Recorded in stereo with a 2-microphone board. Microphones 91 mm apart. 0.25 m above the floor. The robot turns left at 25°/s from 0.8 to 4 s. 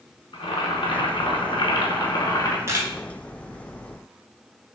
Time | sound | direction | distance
0.3 | boiling | 85° left | 0.5 m
2.7 | a camera shutter | 30° right (ahead or behind) | 0.5 m